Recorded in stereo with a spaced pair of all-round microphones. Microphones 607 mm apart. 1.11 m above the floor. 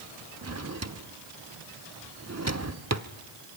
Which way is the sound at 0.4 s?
25° right (ahead or behind).